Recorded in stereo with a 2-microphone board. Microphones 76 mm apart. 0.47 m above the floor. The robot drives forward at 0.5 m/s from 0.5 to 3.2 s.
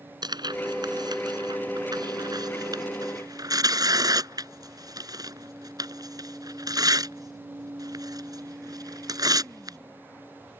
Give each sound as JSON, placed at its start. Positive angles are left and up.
{"t": 0.2, "sound": "tearing paper", "side_deg": -70}